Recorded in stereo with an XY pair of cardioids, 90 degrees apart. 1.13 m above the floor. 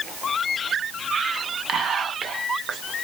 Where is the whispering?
65° right, 1.1 m.